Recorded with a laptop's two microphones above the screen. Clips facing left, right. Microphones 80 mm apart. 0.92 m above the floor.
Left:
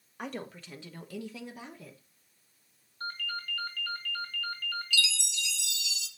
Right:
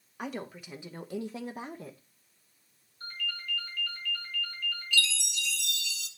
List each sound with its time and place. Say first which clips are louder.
0.2 s a woman speaking: right 1 dB; 5° right (ahead or behind), 1.3 m; by 2.0 s 40° right (ahead or behind), 1.0 m
3.0 s a ringtone: left 2 dB; 70° left (ahead or behind), 3 m
4.9 s a chime: right 5 dB; 45° right (ahead or behind), 0.9 m